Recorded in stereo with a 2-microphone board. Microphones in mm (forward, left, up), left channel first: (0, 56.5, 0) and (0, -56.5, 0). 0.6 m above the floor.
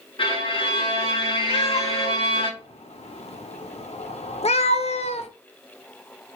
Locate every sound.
0.2 s a violin: 50° left (ahead or behind), 1.2 m
1.5 s a cat meowing: 70° left (ahead or behind), 0.5 m